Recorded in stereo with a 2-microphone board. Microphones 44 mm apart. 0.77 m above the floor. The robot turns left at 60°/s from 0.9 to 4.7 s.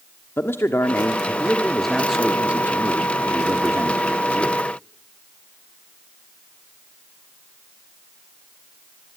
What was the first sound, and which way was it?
A man speaking, 65° left.